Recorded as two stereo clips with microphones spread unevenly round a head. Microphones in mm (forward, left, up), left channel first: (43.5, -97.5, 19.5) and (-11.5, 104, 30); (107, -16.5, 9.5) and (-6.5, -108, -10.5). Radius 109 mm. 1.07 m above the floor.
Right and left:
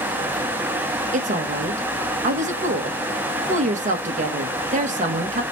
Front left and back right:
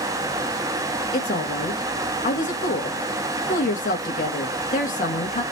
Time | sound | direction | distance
1.1 | a woman speaking | 60° left | 0.9 m